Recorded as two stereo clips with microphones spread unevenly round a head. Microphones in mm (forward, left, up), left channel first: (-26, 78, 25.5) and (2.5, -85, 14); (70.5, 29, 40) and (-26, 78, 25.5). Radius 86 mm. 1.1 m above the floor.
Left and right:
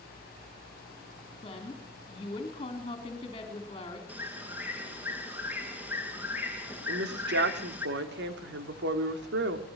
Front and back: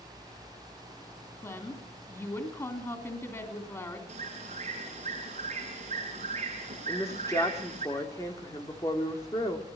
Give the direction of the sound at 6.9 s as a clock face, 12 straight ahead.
3 o'clock.